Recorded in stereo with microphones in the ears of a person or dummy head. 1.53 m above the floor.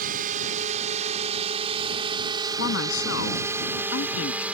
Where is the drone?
45° right (ahead or behind); by 4.5 s 5° right (ahead or behind).